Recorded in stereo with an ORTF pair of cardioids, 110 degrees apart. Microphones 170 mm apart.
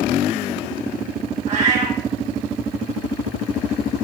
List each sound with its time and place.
1.5 s a cat meowing: 45° right, 1.4 m